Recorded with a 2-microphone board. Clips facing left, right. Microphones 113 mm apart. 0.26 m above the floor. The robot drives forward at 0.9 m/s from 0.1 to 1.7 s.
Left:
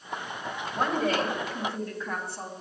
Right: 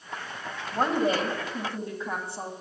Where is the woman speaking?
25° right (ahead or behind), 1.6 m; by 2.5 s 20° right (ahead or behind), 2 m.